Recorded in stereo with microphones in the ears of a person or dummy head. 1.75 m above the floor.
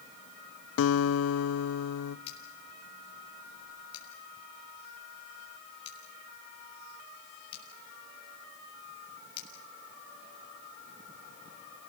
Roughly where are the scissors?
Left.